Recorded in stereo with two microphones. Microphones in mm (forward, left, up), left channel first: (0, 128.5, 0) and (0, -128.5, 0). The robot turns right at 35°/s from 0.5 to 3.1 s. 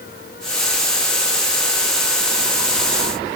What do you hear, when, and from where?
Only background noise.